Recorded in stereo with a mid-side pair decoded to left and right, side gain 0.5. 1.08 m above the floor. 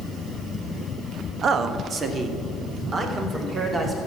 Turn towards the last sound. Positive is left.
turn(degrees=-40)